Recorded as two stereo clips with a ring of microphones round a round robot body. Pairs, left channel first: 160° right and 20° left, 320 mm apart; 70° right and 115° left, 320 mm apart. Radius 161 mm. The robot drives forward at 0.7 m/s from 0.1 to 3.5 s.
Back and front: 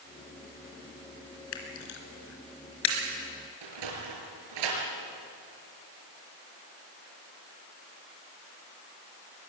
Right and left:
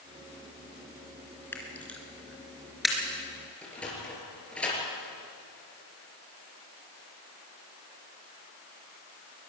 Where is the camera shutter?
150° right, 3 m; by 3.0 s 160° right, 4 m.